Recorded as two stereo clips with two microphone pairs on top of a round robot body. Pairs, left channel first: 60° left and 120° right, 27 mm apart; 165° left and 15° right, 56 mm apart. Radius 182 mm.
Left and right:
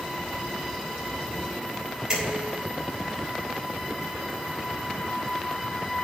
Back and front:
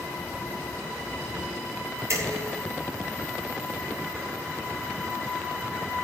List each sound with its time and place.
2.1 s dishes clattering: 50° right, 10 m